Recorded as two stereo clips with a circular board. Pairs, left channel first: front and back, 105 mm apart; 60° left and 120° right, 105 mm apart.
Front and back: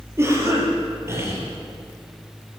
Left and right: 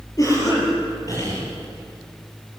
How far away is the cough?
About 7.5 m.